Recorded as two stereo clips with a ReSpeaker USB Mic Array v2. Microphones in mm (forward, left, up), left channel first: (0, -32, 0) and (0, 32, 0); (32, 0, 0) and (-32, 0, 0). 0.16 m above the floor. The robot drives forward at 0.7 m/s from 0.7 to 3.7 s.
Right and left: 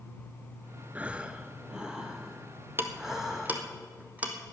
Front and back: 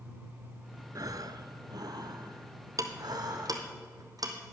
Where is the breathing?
155° left, 0.5 m; by 3.8 s 175° left, 2.5 m.